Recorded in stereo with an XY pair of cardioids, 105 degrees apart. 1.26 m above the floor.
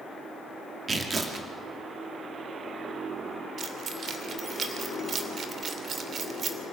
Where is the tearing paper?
35° right, 2.5 m.